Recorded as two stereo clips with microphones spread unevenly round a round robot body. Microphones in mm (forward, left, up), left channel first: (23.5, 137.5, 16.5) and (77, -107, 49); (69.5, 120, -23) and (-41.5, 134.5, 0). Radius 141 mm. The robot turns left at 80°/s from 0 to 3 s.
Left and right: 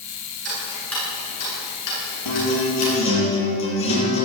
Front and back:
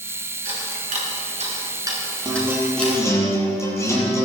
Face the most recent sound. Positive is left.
turn(degrees=60)